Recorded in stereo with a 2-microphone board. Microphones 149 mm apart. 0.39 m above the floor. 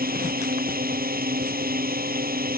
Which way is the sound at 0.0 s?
70° right (ahead or behind).